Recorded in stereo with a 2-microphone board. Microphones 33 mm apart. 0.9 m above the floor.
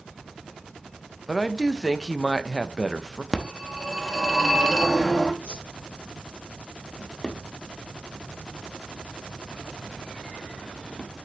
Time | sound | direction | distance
1.3 | a woman speaking | centre (ahead or behind) | 0.5 m
3.3 | a phone ringing | centre (ahead or behind) | 0.9 m
5.4 | a whoosh | 35° right (ahead or behind) | 3 m
7.0 | a drawer | 25° left (ahead or behind) | 0.8 m